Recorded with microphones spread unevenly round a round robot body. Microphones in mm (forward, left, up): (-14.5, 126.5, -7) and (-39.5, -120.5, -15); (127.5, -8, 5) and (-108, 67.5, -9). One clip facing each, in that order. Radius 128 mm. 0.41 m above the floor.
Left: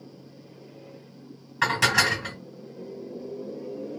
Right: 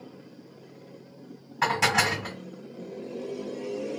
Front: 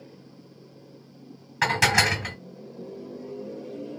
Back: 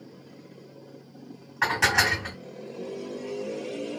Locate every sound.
1.6 s dishes clattering: 15° left, 1.7 m